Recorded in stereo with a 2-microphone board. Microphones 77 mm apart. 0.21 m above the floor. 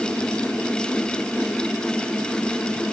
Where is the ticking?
I don't hear ticking.